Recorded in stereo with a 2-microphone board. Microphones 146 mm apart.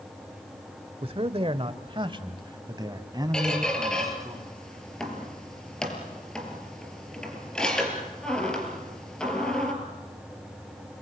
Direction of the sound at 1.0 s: 40° right (ahead or behind).